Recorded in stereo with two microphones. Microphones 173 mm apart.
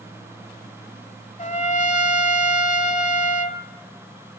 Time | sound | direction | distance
1.4 | a trumpet | 45° left (ahead or behind) | 1.4 m